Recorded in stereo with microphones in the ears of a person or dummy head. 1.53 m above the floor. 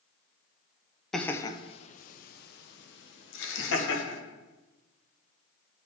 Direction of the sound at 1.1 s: Centre (ahead or behind).